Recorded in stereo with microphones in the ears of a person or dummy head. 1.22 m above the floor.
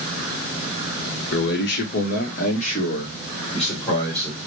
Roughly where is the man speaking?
Left.